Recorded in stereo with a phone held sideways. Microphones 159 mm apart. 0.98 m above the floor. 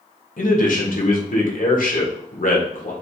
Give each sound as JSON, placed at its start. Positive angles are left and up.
{"t": 0.4, "sound": "a man speaking", "side_deg": 65, "distance_m": 1.3}